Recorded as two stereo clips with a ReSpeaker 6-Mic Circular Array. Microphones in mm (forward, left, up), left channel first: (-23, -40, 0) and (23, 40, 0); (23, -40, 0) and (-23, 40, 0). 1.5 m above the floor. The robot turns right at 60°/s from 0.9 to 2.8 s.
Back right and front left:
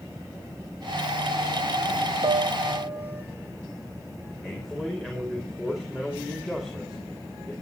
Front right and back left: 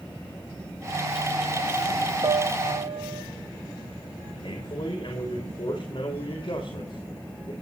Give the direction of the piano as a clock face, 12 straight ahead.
9 o'clock.